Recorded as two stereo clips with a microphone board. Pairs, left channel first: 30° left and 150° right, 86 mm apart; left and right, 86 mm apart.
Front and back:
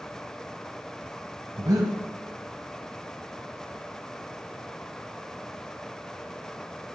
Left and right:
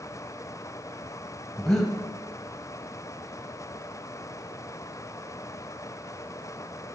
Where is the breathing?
175° left, 0.9 m.